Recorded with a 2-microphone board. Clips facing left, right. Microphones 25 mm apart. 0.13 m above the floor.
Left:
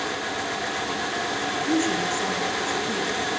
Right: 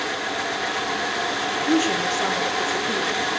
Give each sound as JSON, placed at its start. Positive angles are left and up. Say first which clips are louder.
{"t": 1.7, "sound": "a woman speaking", "louder": "right 3 dB", "side_deg": -30, "distance_m": 4.0}